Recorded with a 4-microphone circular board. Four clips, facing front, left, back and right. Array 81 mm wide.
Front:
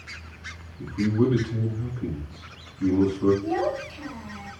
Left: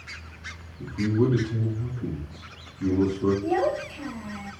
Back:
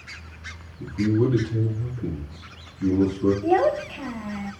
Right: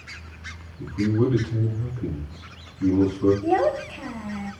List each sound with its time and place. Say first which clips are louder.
0.8 s a man speaking: right 1 dB, back 1 dB; 45° right, 3.5 m
3.4 s a child speaking: right 3 dB, back 6 dB; 150° right, 0.7 m